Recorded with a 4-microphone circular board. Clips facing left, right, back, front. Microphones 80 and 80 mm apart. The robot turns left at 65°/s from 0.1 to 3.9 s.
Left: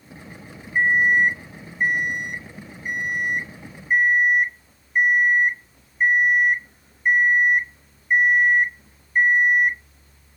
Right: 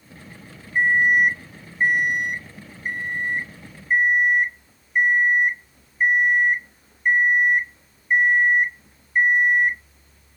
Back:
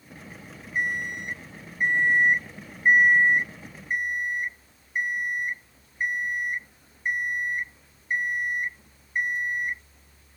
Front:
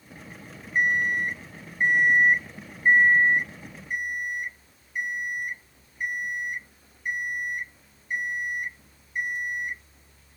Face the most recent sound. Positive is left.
turn(degrees=175)